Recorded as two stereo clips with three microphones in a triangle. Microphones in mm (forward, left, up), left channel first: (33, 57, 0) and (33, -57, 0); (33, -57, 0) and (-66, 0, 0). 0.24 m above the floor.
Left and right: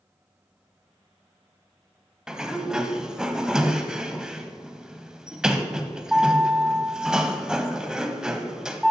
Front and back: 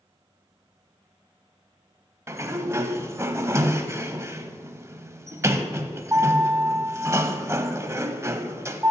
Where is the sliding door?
165° right, 0.6 m.